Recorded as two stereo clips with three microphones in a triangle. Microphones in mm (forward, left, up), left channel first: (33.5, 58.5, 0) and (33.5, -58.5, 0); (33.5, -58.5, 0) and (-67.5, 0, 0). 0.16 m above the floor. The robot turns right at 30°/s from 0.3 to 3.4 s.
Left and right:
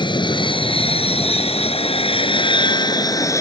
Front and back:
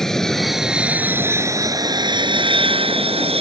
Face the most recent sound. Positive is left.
turn(degrees=150)